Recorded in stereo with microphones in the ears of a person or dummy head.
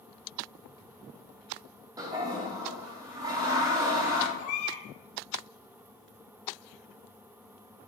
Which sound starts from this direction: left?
A baby crying, at 4.4 s.